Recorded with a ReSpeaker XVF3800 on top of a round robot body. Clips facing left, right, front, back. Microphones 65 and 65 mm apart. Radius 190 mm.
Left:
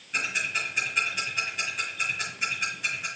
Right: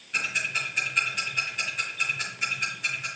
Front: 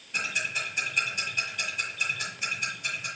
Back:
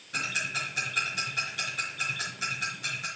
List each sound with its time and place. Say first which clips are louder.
0.1 s ticking: even, front 1 dB; straight behind, 5 m